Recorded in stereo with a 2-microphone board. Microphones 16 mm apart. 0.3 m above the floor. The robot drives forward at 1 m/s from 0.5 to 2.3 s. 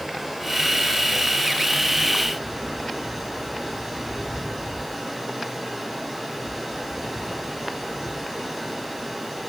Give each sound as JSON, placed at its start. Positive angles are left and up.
{"t": 0.0, "sound": "running water", "side_deg": -10, "distance_m": 6.5}